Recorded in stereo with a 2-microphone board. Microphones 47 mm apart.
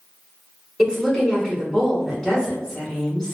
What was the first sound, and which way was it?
A woman speaking, 10° left (ahead or behind).